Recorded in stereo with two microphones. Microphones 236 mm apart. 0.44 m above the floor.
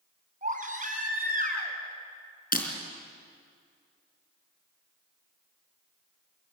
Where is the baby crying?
35° right (ahead or behind), 3 m.